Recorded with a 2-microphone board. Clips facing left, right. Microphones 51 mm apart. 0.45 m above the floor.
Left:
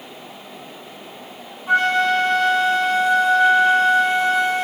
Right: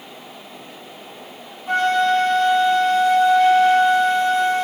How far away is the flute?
About 2 m.